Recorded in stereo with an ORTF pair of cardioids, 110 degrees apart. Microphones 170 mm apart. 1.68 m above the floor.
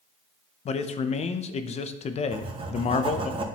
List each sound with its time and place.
0.7 s a man speaking: 40° left, 0.6 m
2.3 s writing: 30° right, 1.0 m